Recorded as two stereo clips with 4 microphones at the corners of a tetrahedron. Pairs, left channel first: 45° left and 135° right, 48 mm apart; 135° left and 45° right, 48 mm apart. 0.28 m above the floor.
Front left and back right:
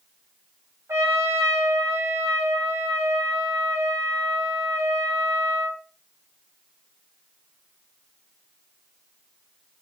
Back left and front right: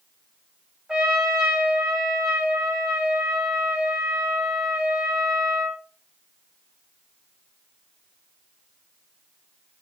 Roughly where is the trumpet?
Behind right.